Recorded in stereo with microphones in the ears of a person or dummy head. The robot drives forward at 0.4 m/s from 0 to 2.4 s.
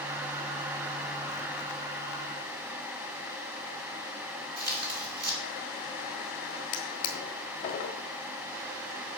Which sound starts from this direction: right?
Tearing paper, at 4.6 s.